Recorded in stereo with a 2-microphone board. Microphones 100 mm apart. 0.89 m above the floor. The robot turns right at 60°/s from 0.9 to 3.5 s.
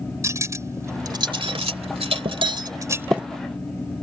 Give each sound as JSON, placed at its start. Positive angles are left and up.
{"t": 0.2, "sound": "cutlery clinking", "side_deg": -30}